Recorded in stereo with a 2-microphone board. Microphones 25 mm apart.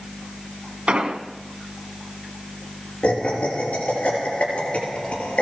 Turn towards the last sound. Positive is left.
turn(degrees=55)  # may be behind; listen again after turning